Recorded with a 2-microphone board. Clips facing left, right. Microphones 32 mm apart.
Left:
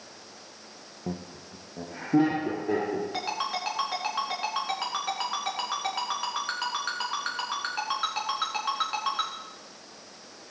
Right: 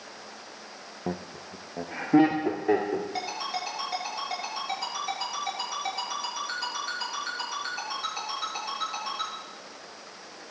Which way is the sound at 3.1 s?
65° left (ahead or behind).